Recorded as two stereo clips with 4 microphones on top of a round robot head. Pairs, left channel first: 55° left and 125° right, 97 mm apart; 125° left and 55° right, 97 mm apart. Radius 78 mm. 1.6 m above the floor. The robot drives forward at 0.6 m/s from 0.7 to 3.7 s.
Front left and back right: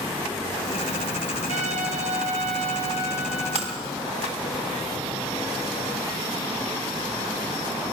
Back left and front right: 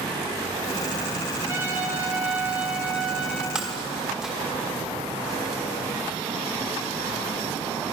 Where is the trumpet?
120° right, 2.5 m; by 3.5 s 140° right, 3 m.